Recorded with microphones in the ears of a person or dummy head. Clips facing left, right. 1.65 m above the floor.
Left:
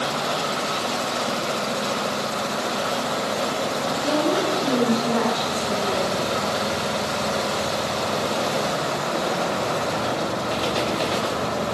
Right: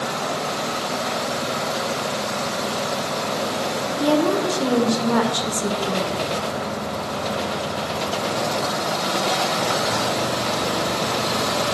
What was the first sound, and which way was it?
A woman speaking, 70° right (ahead or behind).